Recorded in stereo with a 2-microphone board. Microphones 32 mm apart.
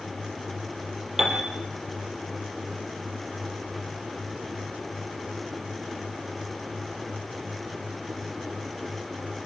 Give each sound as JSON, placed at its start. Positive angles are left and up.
{"t": 1.2, "sound": "a piano", "side_deg": -10, "distance_m": 6.0}